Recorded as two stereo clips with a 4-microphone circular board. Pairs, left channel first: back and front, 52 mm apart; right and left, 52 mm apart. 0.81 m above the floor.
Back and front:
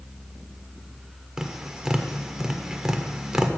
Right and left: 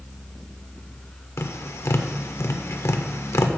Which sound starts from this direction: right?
Tapping, at 1.4 s.